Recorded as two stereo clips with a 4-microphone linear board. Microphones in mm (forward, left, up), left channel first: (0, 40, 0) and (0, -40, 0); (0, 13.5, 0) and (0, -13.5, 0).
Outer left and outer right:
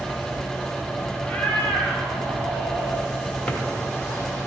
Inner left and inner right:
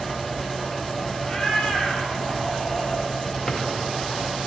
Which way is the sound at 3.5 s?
15° left (ahead or behind).